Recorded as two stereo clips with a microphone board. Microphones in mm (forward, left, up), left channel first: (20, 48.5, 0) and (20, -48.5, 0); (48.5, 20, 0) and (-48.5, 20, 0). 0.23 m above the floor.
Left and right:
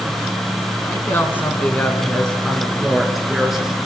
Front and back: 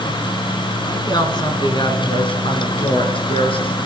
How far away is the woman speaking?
About 2.5 m.